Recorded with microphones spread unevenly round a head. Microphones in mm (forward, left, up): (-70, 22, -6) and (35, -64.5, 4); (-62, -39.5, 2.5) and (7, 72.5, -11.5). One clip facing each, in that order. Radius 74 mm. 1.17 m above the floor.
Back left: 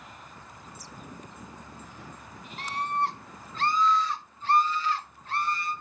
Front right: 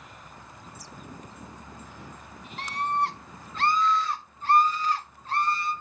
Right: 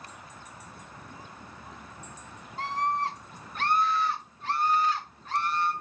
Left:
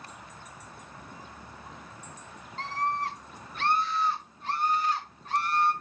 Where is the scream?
40° right, 1.2 m; by 5.7 s 95° right, 2 m.